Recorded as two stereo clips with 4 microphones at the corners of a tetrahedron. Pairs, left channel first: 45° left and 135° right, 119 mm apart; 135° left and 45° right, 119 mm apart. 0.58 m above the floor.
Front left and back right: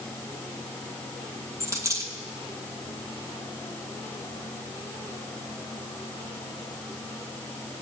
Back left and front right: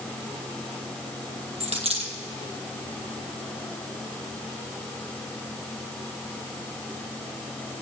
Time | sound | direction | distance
1.6 | a dropped coin | 70° right | 1.9 m